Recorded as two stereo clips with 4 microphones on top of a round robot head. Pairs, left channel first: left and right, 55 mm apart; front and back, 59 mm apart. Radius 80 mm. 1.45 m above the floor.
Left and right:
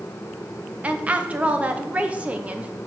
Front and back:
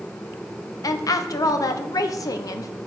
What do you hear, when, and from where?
0.8 s a woman speaking: 20° right, 1.0 m